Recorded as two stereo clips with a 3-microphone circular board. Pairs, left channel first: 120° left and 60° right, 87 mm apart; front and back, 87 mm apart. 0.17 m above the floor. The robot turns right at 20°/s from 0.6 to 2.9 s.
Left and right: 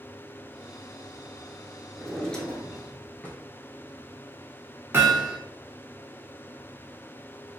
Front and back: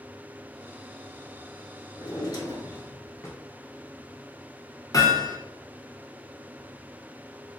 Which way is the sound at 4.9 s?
10° right.